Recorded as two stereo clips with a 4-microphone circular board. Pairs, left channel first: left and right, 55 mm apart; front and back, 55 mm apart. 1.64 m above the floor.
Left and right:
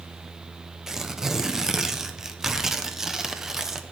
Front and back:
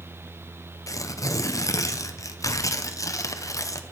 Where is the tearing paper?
10° right, 1.0 m.